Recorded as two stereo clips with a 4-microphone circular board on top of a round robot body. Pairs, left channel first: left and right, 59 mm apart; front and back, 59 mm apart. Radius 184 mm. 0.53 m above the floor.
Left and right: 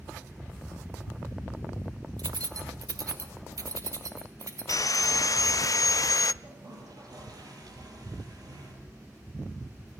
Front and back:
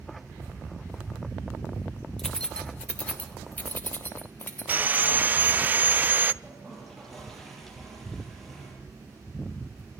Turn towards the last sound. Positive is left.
turn(degrees=-85)